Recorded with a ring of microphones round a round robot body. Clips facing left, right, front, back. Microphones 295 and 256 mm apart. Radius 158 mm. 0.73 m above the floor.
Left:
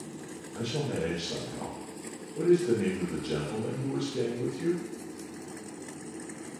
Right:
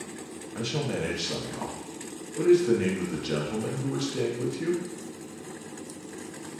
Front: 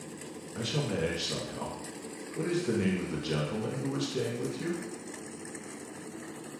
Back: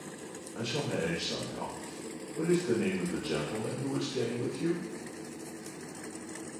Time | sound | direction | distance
0.6 | a man speaking | 40° right | 0.9 m